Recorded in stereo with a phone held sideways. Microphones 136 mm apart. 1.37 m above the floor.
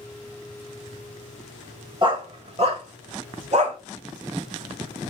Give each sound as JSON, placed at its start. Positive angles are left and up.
{"t": 2.0, "sound": "a dog barking", "side_deg": -40, "distance_m": 2.5}